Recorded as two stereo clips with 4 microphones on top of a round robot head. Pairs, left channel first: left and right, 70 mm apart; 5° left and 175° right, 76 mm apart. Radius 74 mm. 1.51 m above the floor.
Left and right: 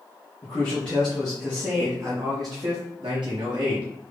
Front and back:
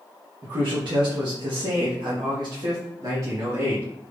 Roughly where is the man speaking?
Behind.